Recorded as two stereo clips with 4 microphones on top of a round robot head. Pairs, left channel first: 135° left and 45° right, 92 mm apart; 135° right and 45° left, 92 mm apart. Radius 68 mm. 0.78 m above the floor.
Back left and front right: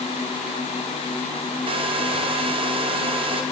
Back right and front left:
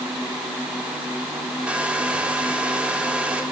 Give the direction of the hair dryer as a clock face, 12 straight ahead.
1 o'clock.